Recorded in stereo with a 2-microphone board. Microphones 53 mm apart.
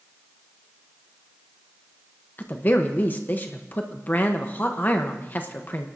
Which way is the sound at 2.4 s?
35° left (ahead or behind).